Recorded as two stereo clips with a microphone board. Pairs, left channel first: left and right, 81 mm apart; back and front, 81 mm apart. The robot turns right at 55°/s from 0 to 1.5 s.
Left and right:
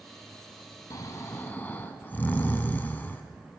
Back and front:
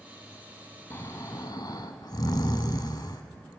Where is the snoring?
120° left, 0.7 m; by 3.2 s 155° left, 0.7 m.